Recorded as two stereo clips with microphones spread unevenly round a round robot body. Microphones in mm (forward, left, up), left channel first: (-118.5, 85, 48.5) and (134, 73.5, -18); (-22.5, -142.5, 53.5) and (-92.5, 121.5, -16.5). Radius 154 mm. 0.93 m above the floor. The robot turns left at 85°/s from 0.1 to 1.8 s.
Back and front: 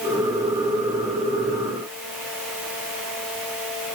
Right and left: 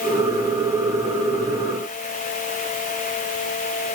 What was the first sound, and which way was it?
Only background noise.